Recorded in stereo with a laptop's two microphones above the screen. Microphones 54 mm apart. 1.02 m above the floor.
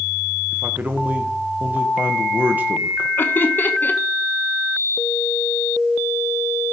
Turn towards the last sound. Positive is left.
turn(degrees=40)  # may be behind; listen again after turning